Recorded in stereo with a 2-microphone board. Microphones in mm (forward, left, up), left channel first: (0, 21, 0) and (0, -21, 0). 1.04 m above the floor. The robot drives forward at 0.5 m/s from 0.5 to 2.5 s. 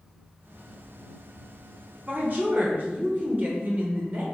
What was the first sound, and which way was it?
A woman speaking, 40° right (ahead or behind).